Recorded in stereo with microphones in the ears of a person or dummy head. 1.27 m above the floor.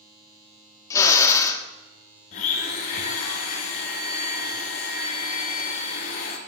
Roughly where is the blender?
Left.